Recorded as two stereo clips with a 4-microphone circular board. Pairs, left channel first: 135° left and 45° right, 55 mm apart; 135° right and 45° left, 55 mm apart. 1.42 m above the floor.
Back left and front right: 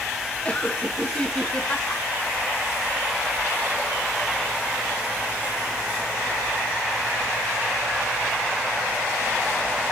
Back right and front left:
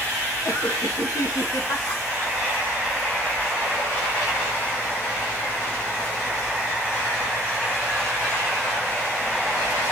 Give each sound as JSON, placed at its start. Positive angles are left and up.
{"t": 0.5, "sound": "laughter", "azimuth_deg": -160, "distance_m": 2.5}